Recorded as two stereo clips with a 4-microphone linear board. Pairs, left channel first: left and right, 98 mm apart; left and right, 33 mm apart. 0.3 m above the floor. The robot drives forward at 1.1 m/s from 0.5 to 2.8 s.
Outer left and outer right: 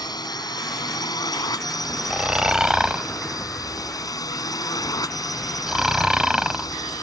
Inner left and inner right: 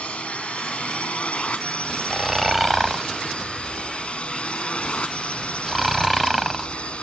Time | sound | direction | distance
0.0 | a drone | 45° left (ahead or behind) | ?
2.1 | snoring | 10° right (ahead or behind) | ?